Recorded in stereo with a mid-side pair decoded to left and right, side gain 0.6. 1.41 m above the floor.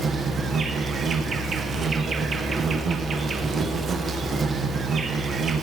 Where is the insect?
40° right, 1.0 m.